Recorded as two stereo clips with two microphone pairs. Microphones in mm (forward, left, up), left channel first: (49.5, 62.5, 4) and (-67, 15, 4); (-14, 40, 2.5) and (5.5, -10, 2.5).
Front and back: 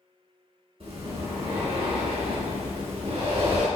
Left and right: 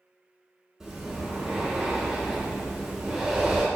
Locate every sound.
0.8 s breathing: 145° right, 0.9 m